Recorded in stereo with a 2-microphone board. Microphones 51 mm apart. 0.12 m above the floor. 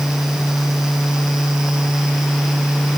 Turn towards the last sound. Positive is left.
No sound to turn to.